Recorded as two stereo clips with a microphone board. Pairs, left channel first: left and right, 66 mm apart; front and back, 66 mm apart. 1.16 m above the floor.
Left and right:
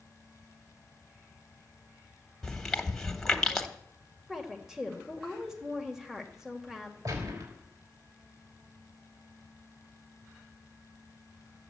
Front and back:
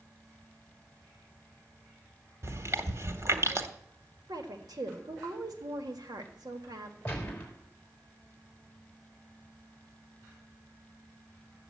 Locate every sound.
2.4 s chewing: 175° left, 1.3 m
4.3 s a woman speaking: 175° right, 1.7 m
7.0 s a gunshot: 70° right, 4.5 m